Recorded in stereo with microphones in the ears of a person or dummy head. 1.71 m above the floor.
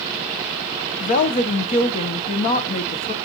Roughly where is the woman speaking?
Left.